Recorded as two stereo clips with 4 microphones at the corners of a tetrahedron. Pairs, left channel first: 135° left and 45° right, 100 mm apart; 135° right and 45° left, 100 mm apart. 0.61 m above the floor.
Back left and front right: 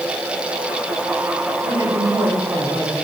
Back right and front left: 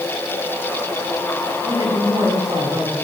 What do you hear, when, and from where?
1.6 s a woman speaking: 10° left, 5 m